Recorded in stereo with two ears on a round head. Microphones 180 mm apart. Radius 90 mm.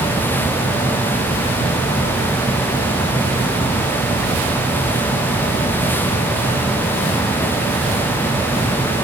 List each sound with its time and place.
Only background noise.